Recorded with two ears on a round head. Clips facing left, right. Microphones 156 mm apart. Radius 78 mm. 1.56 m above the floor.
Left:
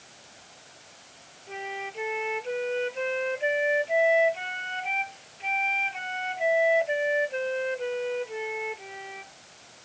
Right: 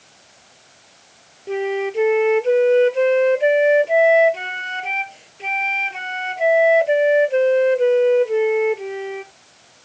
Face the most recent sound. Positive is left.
turn(degrees=-65)  # may be behind; listen again after turning